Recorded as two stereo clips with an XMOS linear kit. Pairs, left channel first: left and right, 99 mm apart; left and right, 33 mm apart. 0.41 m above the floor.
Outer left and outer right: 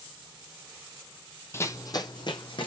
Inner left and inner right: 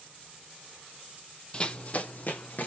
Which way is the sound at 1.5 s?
25° left (ahead or behind).